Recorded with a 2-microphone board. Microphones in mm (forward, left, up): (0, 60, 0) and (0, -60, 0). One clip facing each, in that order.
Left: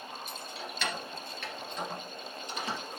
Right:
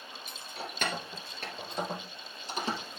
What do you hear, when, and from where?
0.3 s keys jangling: 50° right (ahead or behind), 1.7 m; by 3.0 s 30° right (ahead or behind), 2.5 m